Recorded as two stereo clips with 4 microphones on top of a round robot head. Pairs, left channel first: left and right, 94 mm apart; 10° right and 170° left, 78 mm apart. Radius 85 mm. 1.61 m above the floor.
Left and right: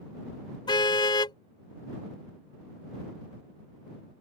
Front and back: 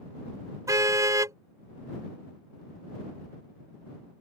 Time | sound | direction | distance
0.7 | a car horn | 125° left | ?